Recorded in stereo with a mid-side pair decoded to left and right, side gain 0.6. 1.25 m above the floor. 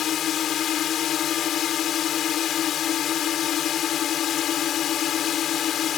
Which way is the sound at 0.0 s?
50° left.